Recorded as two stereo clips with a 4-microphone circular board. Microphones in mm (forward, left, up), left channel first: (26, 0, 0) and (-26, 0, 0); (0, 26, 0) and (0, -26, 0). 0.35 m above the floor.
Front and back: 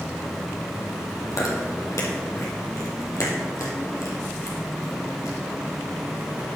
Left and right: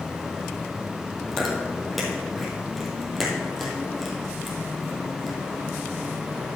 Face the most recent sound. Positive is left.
turn(degrees=0)